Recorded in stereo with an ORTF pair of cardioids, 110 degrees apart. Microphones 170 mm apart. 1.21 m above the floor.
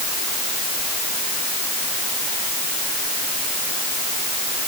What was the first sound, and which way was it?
Only background noise.